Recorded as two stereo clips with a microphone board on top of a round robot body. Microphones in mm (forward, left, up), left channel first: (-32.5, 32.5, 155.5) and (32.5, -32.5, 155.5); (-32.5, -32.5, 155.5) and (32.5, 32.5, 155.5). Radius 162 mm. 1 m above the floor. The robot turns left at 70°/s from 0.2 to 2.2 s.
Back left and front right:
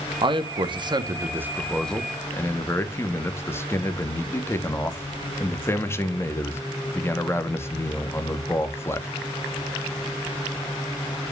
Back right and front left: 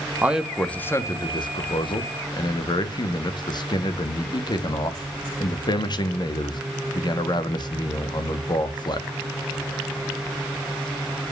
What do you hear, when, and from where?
0.2 s a man speaking: 25° right, 1.3 m; by 9.1 s 165° right, 1.3 m